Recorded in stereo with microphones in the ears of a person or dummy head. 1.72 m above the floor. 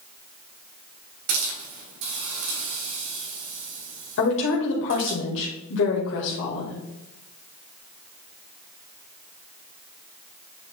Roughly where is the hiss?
Right.